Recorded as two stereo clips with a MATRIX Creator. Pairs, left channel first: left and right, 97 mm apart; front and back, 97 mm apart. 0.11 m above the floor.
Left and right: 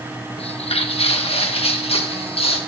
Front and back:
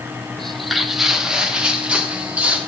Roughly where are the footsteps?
Left.